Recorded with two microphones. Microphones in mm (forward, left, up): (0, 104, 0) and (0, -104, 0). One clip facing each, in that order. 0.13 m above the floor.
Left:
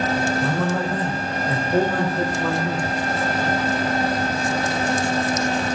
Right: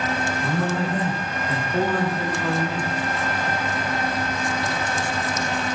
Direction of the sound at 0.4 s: 50° left (ahead or behind).